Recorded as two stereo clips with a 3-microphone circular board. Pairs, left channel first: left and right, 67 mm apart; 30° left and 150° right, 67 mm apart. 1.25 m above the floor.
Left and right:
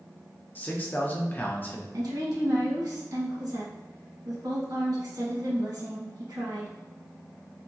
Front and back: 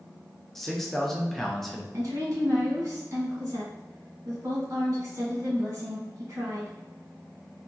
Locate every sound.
0.6 s a man speaking: 110° left, 0.6 m
1.9 s a woman speaking: 110° right, 1.5 m